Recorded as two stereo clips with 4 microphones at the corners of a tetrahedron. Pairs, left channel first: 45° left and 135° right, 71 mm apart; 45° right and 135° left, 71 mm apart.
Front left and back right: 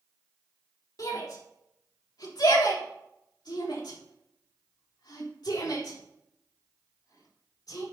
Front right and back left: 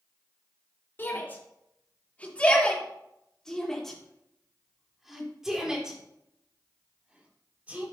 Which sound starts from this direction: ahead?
A shout, at 1.0 s.